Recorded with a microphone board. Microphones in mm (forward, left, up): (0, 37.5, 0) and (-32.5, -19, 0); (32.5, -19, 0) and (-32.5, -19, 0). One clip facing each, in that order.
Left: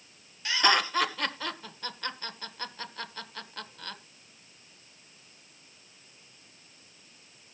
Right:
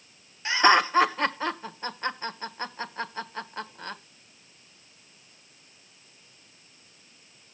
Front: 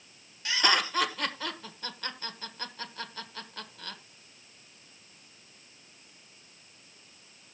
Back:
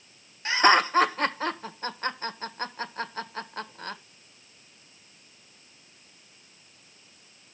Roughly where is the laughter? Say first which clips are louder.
Right 6 dB, back 7 dB; behind.